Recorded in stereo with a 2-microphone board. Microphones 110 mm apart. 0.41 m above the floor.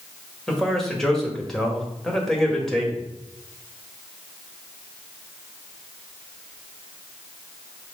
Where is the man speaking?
5° left (ahead or behind), 2.0 m.